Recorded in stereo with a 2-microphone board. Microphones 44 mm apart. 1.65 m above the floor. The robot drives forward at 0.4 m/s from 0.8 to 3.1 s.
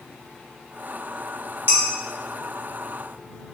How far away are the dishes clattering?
About 1.1 m.